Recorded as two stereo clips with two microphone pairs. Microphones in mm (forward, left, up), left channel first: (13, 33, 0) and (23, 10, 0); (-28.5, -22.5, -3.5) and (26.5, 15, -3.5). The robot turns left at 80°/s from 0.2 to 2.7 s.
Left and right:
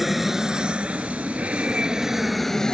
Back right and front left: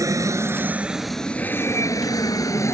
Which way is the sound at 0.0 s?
15° left.